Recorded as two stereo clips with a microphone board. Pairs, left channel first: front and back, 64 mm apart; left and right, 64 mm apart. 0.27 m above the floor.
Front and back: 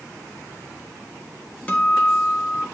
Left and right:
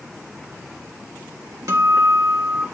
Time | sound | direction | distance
1.7 | a guitar | 65° right | 1.2 m